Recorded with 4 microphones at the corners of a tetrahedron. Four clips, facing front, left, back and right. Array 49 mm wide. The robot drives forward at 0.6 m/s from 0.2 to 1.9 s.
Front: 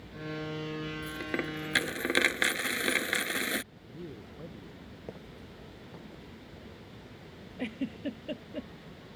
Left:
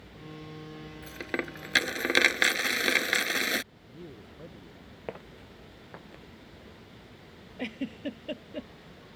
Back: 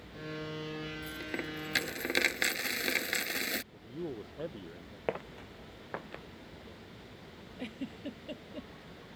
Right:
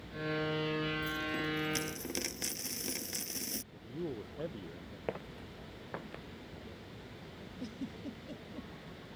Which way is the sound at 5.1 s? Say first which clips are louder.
Even, back 11 dB; 175° left.